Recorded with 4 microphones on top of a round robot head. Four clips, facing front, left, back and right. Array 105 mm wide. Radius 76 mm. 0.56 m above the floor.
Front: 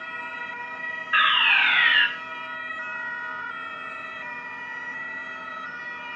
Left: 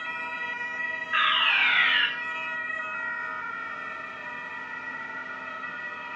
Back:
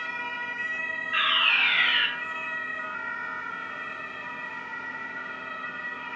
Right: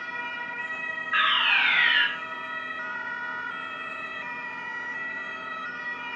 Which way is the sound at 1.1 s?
10° right.